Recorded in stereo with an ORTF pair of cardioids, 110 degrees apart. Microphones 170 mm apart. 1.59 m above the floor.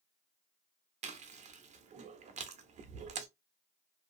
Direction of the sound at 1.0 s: 45° right.